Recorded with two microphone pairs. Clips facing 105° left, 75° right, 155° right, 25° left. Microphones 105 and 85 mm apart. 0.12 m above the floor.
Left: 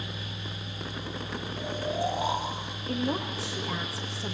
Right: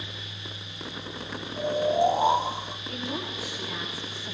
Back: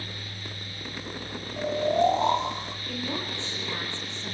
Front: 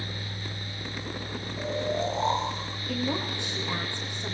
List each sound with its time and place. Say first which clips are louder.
1.6 s snoring: right 8 dB, back 6 dB; 140° right, 7 m
2.9 s a woman speaking: left 6 dB, front 4 dB; 100° left, 7.5 m